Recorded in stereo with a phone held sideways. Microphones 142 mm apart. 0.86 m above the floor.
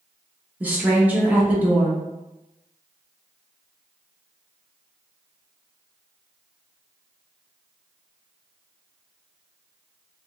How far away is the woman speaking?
About 1.1 m.